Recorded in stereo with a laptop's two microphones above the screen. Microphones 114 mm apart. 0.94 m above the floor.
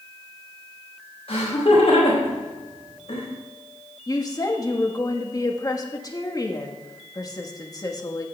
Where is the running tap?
No running tap in this recording.